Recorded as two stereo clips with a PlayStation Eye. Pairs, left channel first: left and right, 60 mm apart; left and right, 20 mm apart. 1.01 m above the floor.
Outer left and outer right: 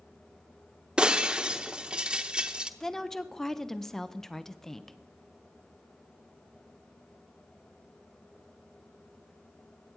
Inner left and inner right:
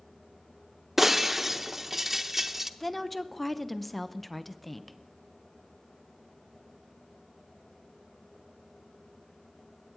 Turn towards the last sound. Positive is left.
turn(degrees=5)  # may be behind; listen again after turning